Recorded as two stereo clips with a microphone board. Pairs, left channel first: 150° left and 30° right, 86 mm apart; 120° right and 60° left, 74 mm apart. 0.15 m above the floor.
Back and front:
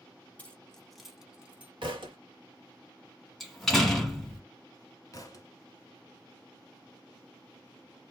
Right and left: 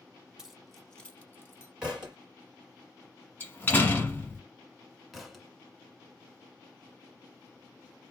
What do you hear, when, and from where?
0.4 s keys jangling: 120° left, 0.7 m; by 1.7 s 90° right, 0.9 m
1.8 s a thud: 20° right, 1.1 m
3.4 s a door slam: 125° right, 1.0 m
5.1 s a thud: 145° left, 0.7 m